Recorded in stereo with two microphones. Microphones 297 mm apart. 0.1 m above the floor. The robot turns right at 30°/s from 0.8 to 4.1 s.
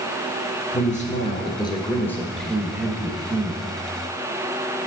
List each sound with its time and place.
0.7 s a man speaking: 130° left, 1.4 m; by 3.6 s 145° right, 1.4 m